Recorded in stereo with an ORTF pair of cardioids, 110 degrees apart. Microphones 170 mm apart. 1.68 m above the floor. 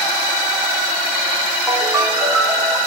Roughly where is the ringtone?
Ahead.